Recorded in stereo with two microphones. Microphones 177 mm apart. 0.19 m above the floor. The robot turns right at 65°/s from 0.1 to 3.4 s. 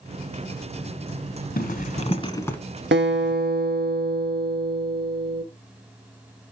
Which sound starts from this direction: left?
A zipper, at 1.6 s.